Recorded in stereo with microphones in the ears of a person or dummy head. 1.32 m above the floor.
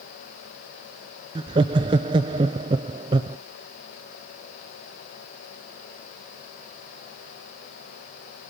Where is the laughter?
25° right (ahead or behind), 0.5 m.